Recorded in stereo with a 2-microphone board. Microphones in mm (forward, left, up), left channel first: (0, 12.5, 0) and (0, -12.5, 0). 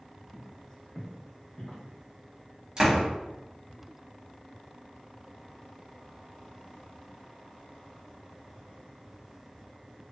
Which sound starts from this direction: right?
A door slam, at 2.8 s.